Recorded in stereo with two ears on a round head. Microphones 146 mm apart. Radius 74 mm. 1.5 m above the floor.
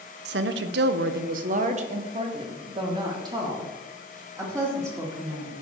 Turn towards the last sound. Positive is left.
turn(degrees=-20)  # may be behind; listen again after turning